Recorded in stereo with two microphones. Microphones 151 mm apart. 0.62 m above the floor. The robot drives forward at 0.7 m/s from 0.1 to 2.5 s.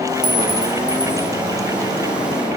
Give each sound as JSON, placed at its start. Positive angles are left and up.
{"t": 0.2, "sound": "a clink", "side_deg": -25, "distance_m": 1.7}